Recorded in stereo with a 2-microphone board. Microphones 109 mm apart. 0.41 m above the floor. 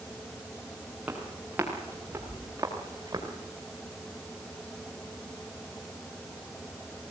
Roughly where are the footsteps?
Centre.